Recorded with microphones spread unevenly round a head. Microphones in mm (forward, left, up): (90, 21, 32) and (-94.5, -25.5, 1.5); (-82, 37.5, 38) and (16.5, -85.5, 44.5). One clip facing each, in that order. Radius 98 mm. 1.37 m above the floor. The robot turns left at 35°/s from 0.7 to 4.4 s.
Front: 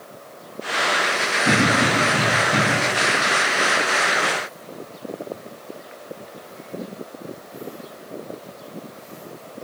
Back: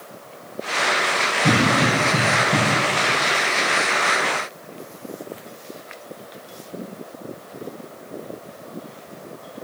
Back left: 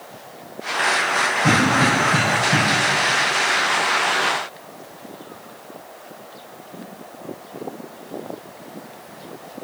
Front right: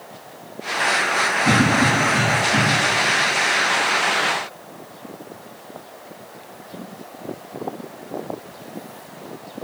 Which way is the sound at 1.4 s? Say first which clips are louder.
Back 1 dB, front right 1 dB; 145° left.